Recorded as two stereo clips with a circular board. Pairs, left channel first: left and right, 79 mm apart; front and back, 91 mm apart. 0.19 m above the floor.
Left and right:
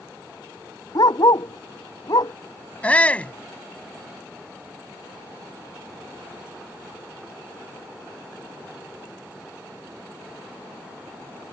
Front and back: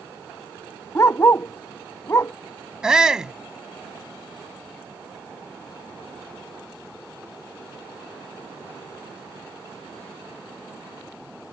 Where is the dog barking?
60° left.